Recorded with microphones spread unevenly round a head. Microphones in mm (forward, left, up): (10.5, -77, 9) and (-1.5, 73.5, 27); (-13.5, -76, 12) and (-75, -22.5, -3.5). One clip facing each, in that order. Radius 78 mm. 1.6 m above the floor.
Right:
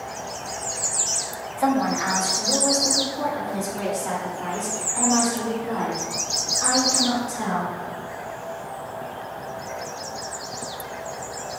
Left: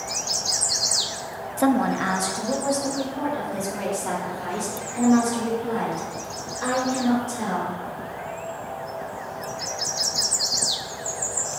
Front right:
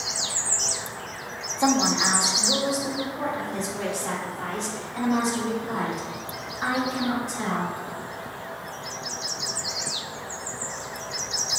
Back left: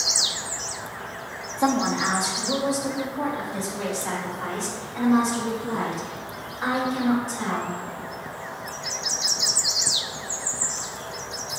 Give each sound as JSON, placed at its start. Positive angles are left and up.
{"t": 1.6, "sound": "a woman speaking", "azimuth_deg": 55, "distance_m": 0.5}